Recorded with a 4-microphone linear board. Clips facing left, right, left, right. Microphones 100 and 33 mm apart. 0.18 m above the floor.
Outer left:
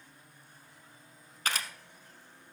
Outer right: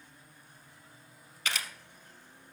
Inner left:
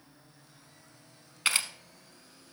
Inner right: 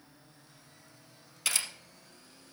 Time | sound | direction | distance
1.4 | a camera shutter | 45° left (ahead or behind) | 1.0 m